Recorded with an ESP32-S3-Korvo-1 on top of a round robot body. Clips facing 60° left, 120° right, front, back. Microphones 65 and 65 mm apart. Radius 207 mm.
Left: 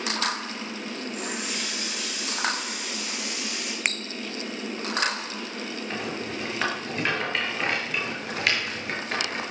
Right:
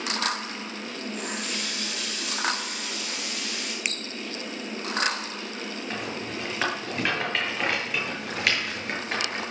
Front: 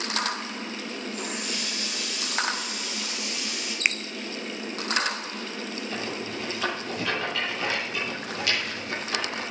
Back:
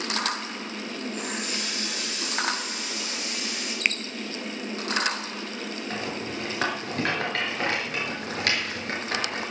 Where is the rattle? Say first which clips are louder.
Left 1 dB, back 1 dB; 150° left, 7 m.